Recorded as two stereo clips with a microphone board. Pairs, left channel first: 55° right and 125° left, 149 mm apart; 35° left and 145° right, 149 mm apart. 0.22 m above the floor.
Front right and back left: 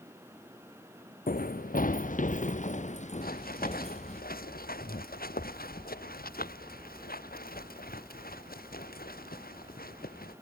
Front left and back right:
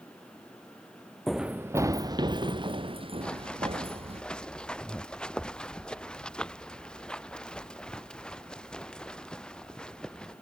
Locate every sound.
1.3 s running footsteps: 55° right; by 4.2 s 95° right
3.2 s running footsteps: 50° right